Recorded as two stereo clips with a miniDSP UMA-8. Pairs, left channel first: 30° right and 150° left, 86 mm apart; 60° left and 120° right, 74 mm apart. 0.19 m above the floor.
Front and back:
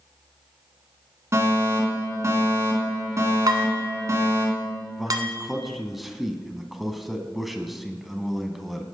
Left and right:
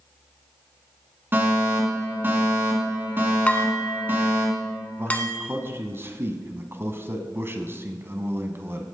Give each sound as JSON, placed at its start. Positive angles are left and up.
{"t": 1.3, "sound": "a fire alarm", "azimuth_deg": -170, "distance_m": 3.0}
{"t": 3.5, "sound": "dishes clattering", "azimuth_deg": 125, "distance_m": 1.2}
{"t": 5.0, "sound": "a man speaking", "azimuth_deg": -125, "distance_m": 1.2}